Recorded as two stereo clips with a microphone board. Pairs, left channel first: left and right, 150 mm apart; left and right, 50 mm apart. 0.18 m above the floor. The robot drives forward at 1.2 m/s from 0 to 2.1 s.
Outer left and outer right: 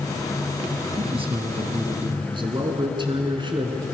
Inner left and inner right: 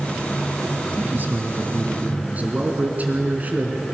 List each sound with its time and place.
1.0 s a man speaking: 40° right (ahead or behind), 2 m; by 3.8 s 35° right (ahead or behind), 2.5 m